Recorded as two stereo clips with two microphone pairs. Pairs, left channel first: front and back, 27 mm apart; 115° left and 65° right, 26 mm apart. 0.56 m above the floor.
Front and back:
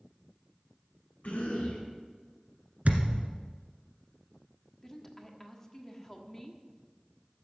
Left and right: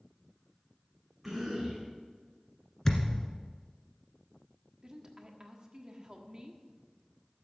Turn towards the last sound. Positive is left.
turn(degrees=-50)